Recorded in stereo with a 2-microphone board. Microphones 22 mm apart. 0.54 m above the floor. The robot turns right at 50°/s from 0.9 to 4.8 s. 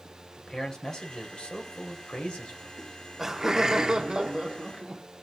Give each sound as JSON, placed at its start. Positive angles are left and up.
{"t": 0.4, "sound": "a man speaking", "azimuth_deg": 35, "distance_m": 2.5}
{"t": 2.8, "sound": "laughter", "azimuth_deg": -170, "distance_m": 1.3}